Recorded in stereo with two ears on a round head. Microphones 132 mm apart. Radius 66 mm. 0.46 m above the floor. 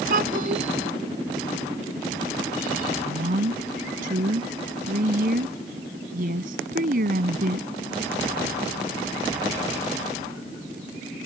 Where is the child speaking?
65° right (ahead or behind).